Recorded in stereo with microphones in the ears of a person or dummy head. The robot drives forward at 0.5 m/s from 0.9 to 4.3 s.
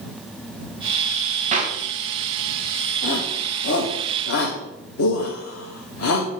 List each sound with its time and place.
1.5 s a clap: 35° right (ahead or behind), 1.1 m; by 1.8 s 30° right (ahead or behind), 1.2 m
3.0 s a shout: 55° left (ahead or behind), 1.3 m; by 6.3 s 80° left, 1.1 m